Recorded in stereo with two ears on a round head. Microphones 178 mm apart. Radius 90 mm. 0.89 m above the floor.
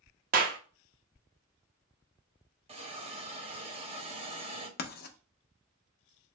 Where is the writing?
50° left (ahead or behind), 0.7 m.